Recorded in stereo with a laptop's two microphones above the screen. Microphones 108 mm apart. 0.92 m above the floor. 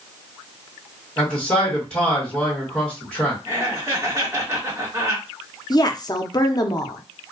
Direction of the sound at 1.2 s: 10° left (ahead or behind).